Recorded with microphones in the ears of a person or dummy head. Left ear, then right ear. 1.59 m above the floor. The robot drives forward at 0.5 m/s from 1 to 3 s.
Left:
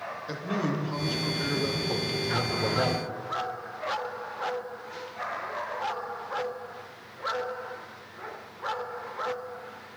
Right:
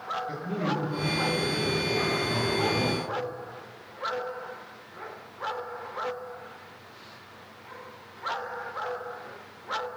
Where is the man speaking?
40° left (ahead or behind), 1.2 m; by 3.1 s 85° left, 0.8 m.